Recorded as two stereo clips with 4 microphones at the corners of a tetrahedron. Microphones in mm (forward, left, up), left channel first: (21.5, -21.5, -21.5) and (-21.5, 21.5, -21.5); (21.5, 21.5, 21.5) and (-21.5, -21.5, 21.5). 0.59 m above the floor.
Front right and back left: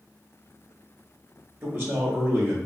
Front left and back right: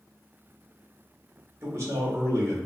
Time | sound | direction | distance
1.6 | a man speaking | straight behind | 1.5 m